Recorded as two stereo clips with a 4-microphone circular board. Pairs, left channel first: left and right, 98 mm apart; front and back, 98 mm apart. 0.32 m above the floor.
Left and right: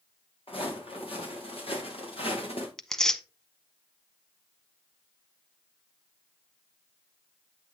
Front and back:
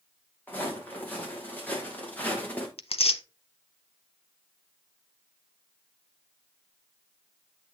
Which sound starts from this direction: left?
Footsteps, at 0.5 s.